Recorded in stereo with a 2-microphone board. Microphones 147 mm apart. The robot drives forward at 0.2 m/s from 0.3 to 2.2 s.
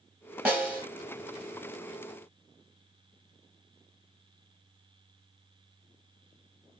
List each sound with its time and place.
0.5 s a snare drum: 10° right (ahead or behind), 1.8 m